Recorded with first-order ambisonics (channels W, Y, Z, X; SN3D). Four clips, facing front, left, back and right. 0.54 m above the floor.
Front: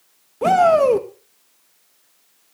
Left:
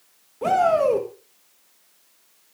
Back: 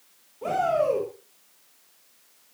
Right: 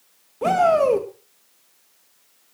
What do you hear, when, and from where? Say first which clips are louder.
0.4 s a shout: right 1 dB, front 10 dB; 15° right, 2 m